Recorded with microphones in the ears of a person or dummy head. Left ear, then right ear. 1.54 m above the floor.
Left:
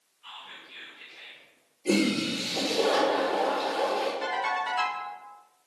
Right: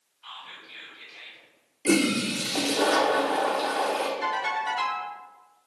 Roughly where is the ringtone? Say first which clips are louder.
Right 1 dB; centre.